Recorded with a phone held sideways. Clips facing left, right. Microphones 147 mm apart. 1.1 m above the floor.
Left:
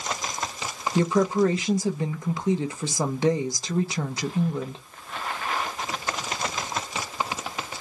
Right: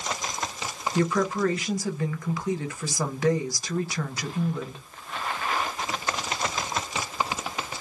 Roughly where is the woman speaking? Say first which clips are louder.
Left 3 dB; left.